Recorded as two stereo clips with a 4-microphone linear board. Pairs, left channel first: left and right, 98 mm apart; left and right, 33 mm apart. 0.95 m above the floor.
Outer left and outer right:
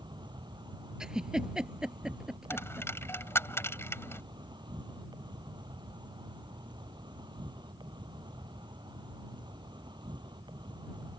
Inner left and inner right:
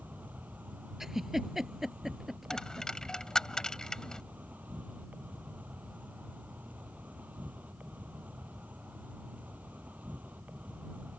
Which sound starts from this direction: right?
An insect, at 0.0 s.